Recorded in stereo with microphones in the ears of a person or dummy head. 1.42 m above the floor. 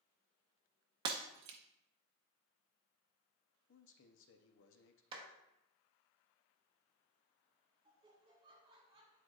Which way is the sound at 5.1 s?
30° right (ahead or behind).